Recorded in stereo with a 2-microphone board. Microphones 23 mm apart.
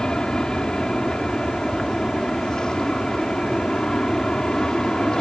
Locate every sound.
0.0 s an aircraft: 40° left (ahead or behind)